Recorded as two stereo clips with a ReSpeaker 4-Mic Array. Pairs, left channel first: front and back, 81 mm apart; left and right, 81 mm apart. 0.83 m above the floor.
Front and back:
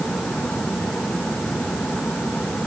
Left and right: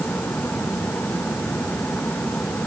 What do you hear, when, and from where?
Only background noise.